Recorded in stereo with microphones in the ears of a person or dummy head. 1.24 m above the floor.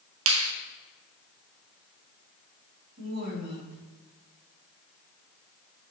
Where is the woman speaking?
40° right (ahead or behind), 3 m.